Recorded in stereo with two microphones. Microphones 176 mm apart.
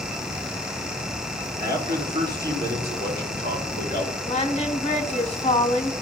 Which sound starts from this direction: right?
A man speaking, at 1.6 s.